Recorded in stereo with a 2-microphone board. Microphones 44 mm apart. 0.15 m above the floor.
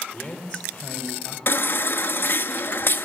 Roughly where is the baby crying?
Left.